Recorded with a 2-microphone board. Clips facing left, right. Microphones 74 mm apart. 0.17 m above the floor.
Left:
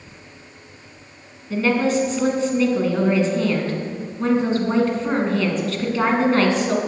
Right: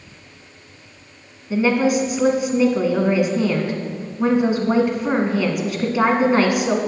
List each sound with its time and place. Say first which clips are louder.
1.5 s a woman speaking: right 2 dB; 15° right (ahead or behind), 1.6 m